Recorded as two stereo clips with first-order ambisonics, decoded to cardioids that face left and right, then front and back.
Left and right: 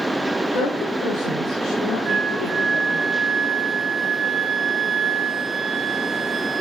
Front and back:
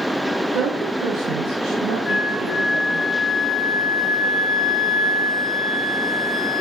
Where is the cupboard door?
No cupboard door in this recording.